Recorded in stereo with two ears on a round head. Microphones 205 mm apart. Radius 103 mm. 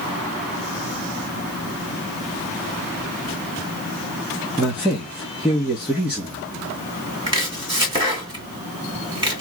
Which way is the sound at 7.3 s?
20° right (ahead or behind).